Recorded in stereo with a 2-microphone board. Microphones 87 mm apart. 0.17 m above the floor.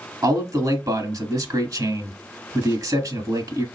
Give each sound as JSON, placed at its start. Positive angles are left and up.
{"t": 0.2, "sound": "a man speaking", "side_deg": -45, "distance_m": 1.5}